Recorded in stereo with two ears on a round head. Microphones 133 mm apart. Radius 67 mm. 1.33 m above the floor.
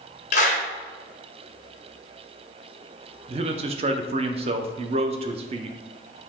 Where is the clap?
50° left (ahead or behind), 0.9 m.